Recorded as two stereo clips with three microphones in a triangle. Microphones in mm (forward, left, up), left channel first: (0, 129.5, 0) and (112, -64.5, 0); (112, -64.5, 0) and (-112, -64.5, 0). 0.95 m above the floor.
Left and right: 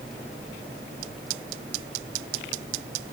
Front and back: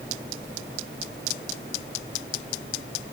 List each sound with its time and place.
Only background noise.